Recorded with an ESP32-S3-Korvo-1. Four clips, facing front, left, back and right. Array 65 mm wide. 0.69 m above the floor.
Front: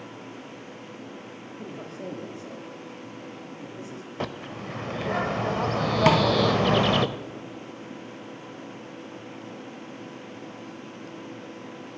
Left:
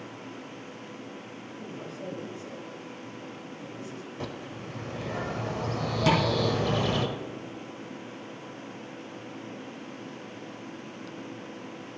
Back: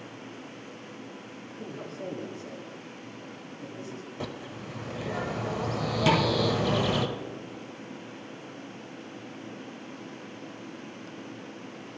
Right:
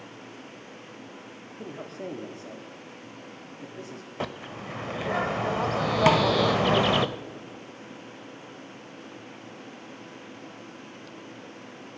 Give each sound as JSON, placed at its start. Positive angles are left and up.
{"t": 1.5, "sound": "a man speaking", "azimuth_deg": -85, "distance_m": 1.5}
{"t": 4.2, "sound": "a bird", "azimuth_deg": -50, "distance_m": 0.6}
{"t": 6.1, "sound": "tapping", "azimuth_deg": -45, "distance_m": 1.6}